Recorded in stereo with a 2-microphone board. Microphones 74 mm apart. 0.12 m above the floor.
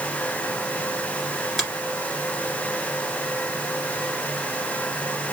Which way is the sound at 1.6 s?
5° left (ahead or behind).